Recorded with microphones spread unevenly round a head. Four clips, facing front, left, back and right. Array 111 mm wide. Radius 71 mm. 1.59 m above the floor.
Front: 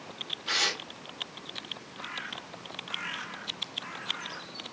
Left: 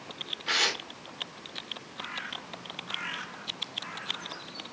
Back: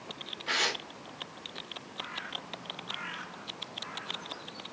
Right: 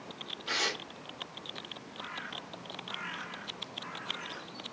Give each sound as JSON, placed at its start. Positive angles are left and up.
{"t": 0.5, "sound": "tearing paper", "azimuth_deg": 85, "distance_m": 3.5}